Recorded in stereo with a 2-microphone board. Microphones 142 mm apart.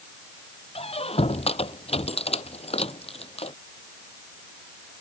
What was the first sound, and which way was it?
A squeak, 45° left (ahead or behind).